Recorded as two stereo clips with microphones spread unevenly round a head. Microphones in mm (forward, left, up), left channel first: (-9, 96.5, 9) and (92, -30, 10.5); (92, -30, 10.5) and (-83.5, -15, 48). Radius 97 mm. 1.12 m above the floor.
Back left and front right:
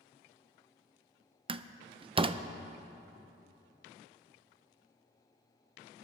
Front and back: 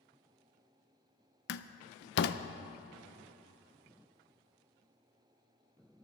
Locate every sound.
1.5 s a door slam: 10° left, 0.6 m